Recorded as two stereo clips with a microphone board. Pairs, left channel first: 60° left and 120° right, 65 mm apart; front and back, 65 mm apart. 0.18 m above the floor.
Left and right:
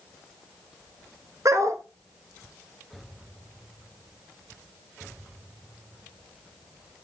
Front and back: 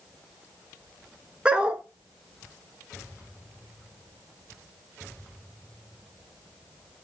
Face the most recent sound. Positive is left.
turn(degrees=-110)